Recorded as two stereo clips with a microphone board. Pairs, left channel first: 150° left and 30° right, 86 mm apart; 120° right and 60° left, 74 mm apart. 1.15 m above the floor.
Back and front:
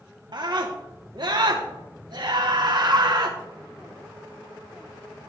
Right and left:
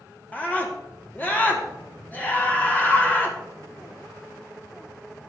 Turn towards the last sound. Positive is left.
turn(degrees=-55)